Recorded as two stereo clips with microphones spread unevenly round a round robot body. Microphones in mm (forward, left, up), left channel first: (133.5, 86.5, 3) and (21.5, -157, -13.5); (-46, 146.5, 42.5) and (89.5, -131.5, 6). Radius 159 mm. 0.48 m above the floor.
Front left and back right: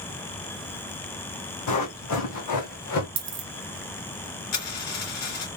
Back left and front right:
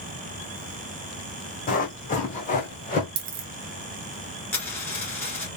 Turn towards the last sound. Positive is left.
turn(degrees=30)